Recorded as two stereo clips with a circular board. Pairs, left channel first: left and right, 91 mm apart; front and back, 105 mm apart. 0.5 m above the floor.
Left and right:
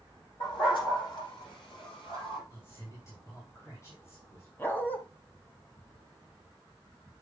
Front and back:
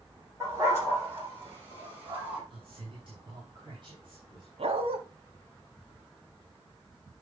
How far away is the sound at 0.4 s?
About 7 m.